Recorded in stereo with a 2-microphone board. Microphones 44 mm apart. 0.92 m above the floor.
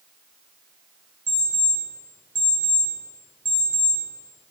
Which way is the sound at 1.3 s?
50° right (ahead or behind).